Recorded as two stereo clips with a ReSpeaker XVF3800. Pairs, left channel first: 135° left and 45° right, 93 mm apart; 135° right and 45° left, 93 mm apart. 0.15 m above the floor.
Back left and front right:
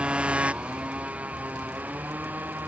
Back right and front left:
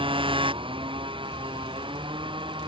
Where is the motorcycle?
30° left; by 2.7 s 25° left.